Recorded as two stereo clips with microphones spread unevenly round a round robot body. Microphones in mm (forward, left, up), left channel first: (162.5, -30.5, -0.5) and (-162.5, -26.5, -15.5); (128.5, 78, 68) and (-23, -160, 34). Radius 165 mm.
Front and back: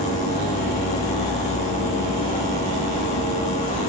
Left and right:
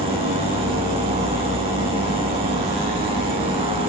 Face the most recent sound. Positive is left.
turn(degrees=-65)